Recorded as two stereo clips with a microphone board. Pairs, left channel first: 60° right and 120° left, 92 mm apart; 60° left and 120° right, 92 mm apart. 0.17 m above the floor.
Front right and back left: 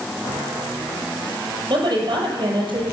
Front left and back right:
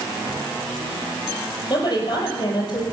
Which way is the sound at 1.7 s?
95° left.